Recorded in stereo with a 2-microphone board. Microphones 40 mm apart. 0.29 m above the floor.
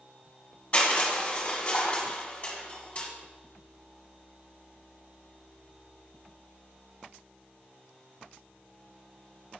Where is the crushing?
35° left (ahead or behind), 1.5 m.